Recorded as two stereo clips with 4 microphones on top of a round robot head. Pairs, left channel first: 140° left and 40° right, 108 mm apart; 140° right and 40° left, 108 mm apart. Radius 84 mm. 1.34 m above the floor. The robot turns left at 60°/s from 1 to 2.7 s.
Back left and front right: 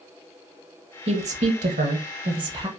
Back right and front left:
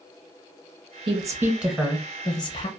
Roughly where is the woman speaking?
Ahead.